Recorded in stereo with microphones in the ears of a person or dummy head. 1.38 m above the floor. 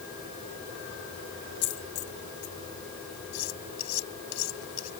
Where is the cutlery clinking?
85° left.